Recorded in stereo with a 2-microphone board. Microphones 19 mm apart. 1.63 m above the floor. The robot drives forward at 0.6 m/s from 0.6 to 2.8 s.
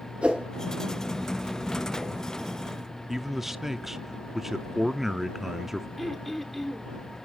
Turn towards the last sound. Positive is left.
turn(degrees=10)  # may be behind; listen again after turning